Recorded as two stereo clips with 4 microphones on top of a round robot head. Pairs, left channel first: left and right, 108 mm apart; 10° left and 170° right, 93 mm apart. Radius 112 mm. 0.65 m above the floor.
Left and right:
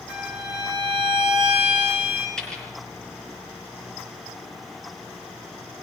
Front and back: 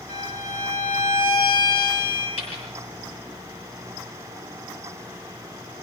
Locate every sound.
0.1 s a violin: 5° right, 9.5 m
2.4 s a dropped coin: 5° left, 6.5 m